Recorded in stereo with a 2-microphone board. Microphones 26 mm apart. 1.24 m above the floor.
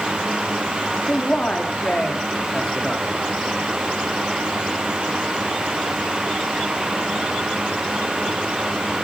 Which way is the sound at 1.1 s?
45° left (ahead or behind).